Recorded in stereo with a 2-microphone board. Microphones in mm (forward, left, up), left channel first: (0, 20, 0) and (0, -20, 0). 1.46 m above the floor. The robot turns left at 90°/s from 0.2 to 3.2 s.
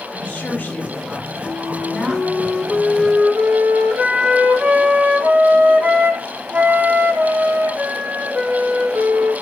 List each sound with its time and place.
0.1 s a woman speaking: 160° left, 2.5 m; by 2.4 s 45° right, 2.5 m
1.4 s a flute: 115° left, 1.2 m; by 9.3 s 40° right, 1.2 m